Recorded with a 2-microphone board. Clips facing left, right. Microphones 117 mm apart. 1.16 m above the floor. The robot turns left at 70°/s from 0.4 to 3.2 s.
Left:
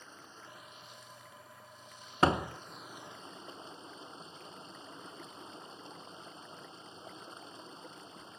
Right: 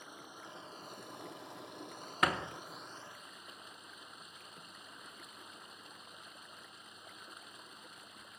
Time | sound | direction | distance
0.0 | running water | 15° right | ?
2.2 | a door slam | 30° left (ahead or behind) | ?